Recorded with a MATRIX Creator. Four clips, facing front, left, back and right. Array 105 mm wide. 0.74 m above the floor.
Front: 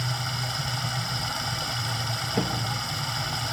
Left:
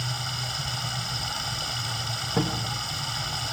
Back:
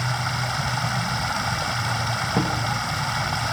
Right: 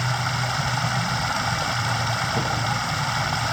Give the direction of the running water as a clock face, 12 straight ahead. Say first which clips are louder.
Right 9 dB, back 6 dB; 4 o'clock.